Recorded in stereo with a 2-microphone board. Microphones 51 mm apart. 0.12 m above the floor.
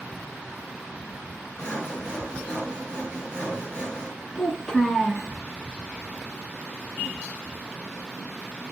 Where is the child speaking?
10° left (ahead or behind), 0.8 m.